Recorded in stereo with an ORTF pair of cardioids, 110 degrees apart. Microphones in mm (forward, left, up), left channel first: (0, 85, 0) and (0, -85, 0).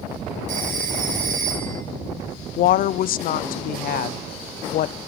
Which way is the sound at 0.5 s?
55° right.